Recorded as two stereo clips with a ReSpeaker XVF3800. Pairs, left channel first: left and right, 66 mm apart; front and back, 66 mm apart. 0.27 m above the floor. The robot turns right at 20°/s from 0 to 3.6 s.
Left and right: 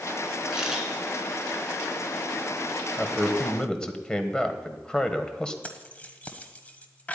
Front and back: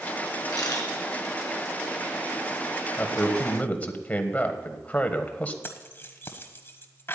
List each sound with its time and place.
0.5 s a camera shutter: 15° right, 3 m; by 0.9 s 5° right, 3 m
3.0 s a man speaking: 15° left, 1.3 m; by 5.5 s 30° left, 1.3 m
5.6 s keys jangling: 35° left, 1.2 m